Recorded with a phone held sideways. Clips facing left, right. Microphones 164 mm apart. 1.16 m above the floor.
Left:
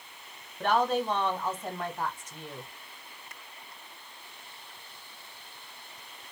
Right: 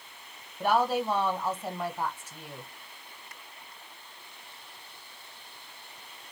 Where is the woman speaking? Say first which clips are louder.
Even; 10° right (ahead or behind), 1.1 m.